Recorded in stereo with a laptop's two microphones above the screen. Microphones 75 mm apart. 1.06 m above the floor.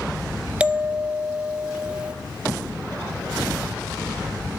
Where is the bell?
10° right (ahead or behind), 0.6 m.